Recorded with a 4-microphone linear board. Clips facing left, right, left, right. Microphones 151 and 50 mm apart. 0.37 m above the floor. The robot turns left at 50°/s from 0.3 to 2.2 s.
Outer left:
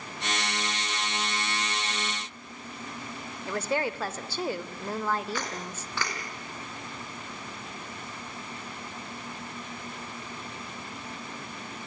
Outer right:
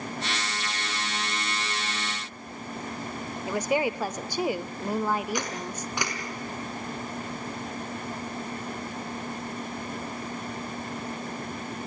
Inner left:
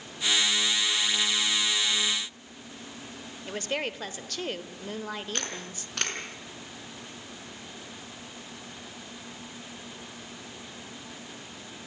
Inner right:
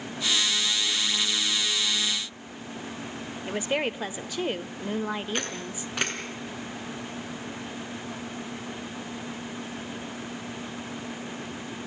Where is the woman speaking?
15° right (ahead or behind), 1.0 m.